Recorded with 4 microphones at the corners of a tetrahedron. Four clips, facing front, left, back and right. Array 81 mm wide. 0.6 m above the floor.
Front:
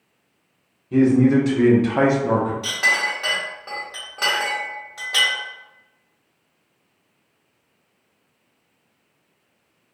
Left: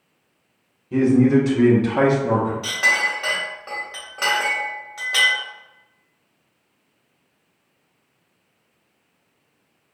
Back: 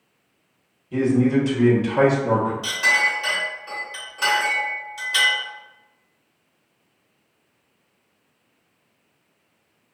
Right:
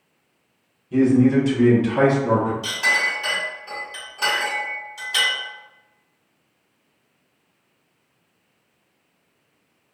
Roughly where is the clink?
Ahead left.